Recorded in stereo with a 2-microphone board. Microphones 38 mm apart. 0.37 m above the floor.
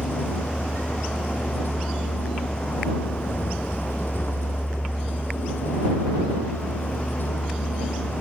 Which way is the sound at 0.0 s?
65° left (ahead or behind).